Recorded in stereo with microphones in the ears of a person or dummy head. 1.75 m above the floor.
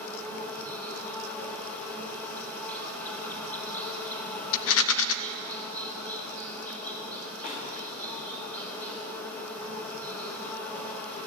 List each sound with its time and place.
0.0 s an insect: 10° left (ahead or behind), 3 m
4.5 s a rattle: 75° left (ahead or behind), 0.6 m
7.4 s a snare drum: 70° left (ahead or behind), 7 m